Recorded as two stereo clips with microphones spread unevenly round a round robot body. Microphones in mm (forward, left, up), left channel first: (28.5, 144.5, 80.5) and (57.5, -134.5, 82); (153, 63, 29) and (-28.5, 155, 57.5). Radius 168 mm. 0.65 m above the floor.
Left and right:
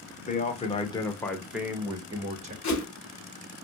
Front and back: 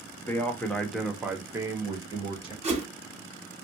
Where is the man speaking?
40° left, 1.2 m; by 2.5 s 140° right, 1.1 m.